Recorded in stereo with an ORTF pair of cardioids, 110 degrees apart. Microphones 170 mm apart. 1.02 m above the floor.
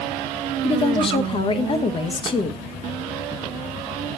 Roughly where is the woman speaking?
Ahead left.